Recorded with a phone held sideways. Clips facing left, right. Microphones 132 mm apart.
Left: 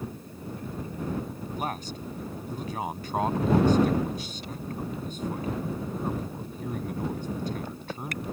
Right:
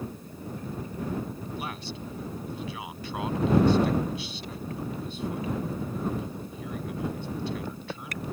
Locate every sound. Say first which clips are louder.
1.5 s a man speaking: left 3 dB; 45° left (ahead or behind)